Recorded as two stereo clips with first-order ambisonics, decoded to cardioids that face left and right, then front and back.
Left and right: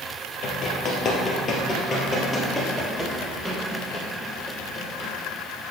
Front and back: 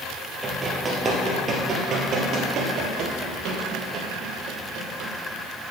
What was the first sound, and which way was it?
Running footsteps, 110° left.